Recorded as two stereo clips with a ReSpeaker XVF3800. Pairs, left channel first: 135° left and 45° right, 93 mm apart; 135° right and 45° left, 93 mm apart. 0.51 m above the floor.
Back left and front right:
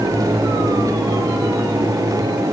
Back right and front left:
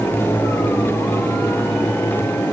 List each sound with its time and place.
Only background noise.